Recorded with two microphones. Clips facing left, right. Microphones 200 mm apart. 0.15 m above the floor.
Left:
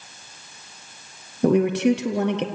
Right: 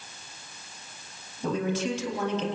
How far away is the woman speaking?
About 3 m.